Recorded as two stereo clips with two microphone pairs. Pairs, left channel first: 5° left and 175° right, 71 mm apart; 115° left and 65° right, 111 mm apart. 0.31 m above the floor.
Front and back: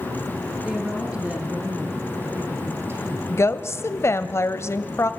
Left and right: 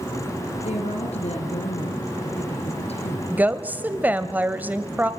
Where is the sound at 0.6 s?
105° left, 4.5 m; by 3.2 s 135° left, 5.5 m.